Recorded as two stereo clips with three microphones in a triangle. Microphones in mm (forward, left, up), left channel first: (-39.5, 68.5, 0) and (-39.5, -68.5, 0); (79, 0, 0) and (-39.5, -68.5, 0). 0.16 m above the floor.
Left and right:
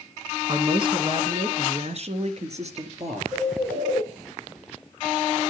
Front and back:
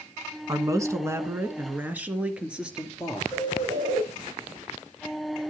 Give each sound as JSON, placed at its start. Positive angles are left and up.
{"t": 0.5, "sound": "a man speaking", "azimuth_deg": -110, "distance_m": 1.4}
{"t": 3.3, "sound": "a bird", "azimuth_deg": -110, "distance_m": 5.5}